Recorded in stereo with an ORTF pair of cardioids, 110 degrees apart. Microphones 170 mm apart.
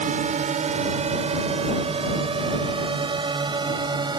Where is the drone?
50° right; by 4.2 s 25° right.